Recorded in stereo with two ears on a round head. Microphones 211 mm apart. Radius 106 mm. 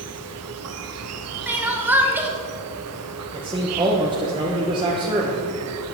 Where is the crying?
10° right (ahead or behind), 1.1 m.